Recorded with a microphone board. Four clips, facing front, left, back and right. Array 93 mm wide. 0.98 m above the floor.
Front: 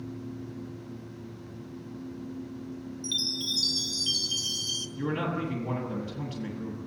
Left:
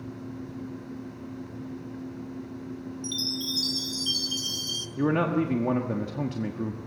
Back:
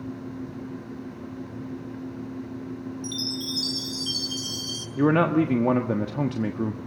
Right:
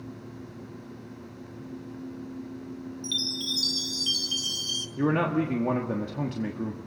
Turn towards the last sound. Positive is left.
turn(degrees=180)